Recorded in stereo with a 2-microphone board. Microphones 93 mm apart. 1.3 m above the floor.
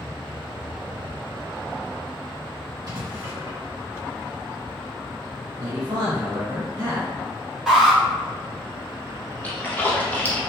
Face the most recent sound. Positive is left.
turn(degrees=15)  # may be behind; listen again after turning